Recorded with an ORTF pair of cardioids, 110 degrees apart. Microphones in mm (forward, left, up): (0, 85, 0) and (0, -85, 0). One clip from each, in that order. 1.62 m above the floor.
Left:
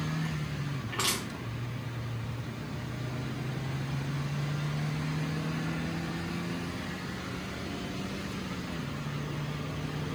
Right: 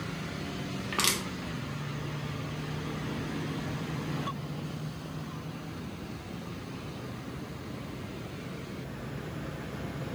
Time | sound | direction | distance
0.9 | crushing | 45° right | 0.9 m